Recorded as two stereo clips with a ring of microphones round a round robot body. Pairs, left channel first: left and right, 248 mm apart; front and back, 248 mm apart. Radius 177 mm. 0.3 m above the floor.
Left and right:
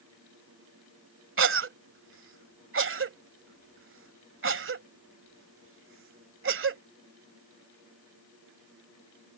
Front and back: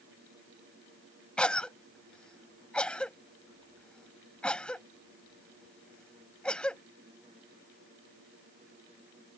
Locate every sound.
1.4 s a cough: 85° right